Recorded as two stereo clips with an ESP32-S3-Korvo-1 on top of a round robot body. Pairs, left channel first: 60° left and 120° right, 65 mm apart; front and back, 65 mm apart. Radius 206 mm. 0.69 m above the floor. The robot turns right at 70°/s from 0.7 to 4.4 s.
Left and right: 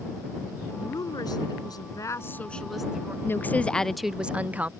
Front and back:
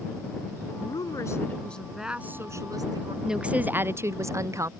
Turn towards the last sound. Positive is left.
turn(degrees=180)